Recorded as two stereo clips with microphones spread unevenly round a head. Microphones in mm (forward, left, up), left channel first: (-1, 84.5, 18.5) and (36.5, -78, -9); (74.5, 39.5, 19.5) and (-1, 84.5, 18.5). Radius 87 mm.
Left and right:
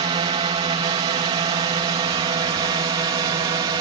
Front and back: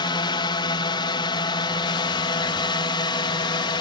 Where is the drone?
20° right; by 3.8 s 15° right.